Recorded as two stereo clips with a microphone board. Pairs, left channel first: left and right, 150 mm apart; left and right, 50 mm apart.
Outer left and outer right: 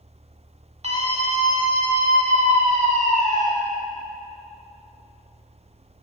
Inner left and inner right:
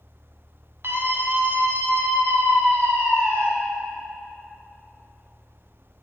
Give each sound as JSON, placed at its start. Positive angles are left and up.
{"t": 0.8, "sound": "a scream", "side_deg": -50, "distance_m": 2.5}